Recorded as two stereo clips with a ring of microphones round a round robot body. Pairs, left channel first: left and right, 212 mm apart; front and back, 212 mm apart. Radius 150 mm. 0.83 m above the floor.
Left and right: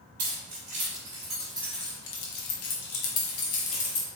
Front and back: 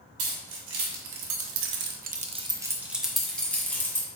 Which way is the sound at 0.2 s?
145° right.